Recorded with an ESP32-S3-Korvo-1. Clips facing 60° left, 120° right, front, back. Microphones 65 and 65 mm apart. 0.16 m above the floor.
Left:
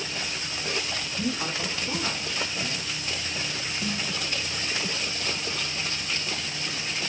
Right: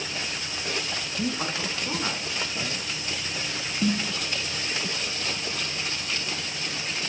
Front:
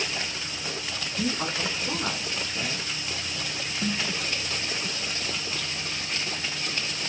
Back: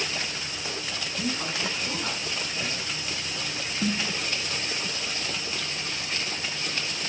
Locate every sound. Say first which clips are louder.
1.2 s a woman speaking: right 1 dB, front 2 dB; 65° right, 1.8 m
3.8 s a snare drum: right 8 dB, back 2 dB; 115° right, 0.6 m